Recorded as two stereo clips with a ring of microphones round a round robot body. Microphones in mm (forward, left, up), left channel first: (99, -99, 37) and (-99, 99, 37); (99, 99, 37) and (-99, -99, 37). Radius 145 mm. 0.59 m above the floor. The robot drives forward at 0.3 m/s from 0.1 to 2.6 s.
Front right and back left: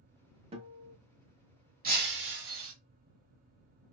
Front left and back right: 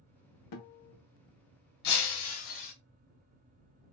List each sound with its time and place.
0.5 s a guitar: 65° left, 0.7 m; by 0.9 s 75° left, 0.7 m
1.8 s breaking glass: 75° left, 0.9 m; by 2.7 s 90° left, 0.8 m